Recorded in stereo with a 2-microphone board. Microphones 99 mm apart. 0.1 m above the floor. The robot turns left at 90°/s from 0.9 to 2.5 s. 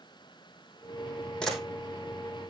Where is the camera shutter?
10° left (ahead or behind), 4 m; by 1.6 s 10° right (ahead or behind), 4 m.